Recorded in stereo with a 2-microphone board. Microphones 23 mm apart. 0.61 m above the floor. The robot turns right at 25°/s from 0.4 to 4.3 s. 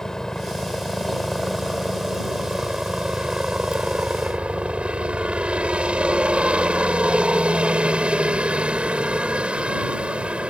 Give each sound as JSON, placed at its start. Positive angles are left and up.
{"t": 0.0, "sound": "a helicopter", "azimuth_deg": 150}